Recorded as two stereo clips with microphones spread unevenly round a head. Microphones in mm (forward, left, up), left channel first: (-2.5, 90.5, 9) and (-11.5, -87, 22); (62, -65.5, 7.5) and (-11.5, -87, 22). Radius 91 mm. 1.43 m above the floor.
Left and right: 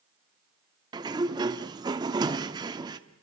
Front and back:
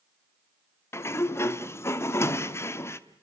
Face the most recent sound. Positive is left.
turn(degrees=-35)